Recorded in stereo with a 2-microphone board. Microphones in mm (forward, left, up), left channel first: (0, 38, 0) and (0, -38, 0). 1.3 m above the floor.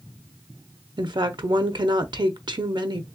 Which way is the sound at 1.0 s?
70° right (ahead or behind).